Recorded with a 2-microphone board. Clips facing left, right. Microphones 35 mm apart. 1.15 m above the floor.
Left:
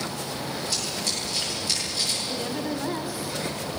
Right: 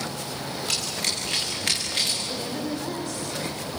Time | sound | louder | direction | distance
0.7 | running footsteps | right 4 dB | 75° right (ahead or behind) | 8 m
2.3 | a woman speaking | left 1 dB | 15° left (ahead or behind) | 3.5 m